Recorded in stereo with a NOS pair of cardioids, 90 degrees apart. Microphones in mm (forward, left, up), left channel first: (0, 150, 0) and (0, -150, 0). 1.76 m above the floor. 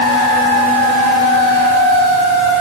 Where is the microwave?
I don't hear a microwave.